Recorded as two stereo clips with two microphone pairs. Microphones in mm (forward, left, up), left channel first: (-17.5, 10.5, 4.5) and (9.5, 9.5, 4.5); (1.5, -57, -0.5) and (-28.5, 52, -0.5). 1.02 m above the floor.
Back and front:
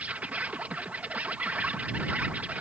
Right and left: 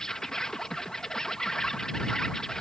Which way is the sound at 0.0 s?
10° left.